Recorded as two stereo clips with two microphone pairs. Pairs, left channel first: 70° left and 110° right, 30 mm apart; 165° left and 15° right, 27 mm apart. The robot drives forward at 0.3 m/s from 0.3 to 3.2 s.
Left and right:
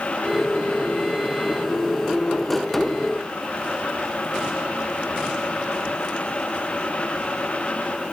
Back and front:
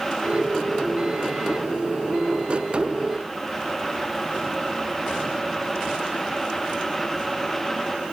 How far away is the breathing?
No breathing in this recording.